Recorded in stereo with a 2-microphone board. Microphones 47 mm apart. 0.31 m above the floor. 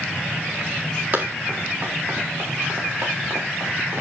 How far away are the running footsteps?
About 7 m.